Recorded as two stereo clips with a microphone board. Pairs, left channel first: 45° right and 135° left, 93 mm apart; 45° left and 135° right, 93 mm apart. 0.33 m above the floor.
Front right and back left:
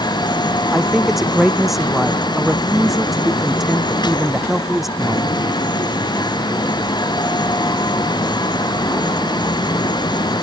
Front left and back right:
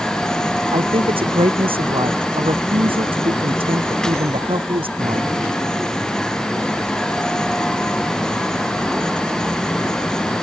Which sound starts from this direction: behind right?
A man speaking, at 0.7 s.